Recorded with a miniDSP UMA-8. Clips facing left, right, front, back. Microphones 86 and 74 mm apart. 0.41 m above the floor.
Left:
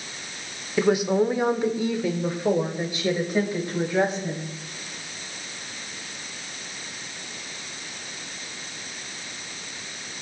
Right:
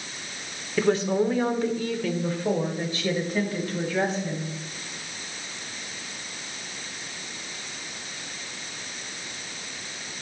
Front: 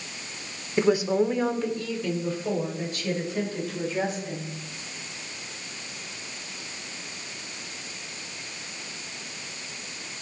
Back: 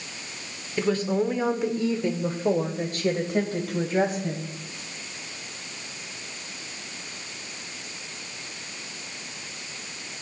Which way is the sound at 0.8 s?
30° left.